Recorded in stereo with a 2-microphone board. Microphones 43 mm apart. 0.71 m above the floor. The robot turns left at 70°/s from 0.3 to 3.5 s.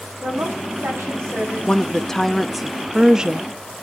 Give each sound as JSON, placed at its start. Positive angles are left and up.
{"t": 0.2, "sound": "a woman speaking", "azimuth_deg": -45, "distance_m": 4.5}
{"t": 1.7, "sound": "a woman speaking", "side_deg": 20, "distance_m": 0.6}